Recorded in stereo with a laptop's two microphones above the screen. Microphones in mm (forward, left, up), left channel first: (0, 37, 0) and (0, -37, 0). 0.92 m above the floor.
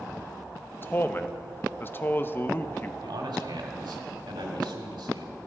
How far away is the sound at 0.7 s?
About 0.7 m.